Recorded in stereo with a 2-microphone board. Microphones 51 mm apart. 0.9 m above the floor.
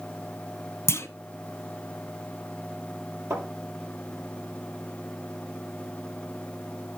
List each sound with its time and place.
0.9 s a clunk: 55° left (ahead or behind), 1.2 m
3.3 s a thud: 70° right (ahead or behind), 6.5 m